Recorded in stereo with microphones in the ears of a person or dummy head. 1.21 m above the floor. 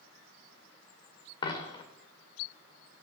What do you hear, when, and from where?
1.4 s a dropped coin: 30° left (ahead or behind), 1.6 m